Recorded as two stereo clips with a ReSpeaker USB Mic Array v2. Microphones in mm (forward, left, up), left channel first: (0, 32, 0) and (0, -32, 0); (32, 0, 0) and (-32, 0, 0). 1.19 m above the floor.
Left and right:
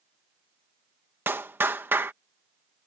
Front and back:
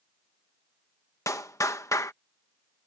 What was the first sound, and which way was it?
A clap, 35° right.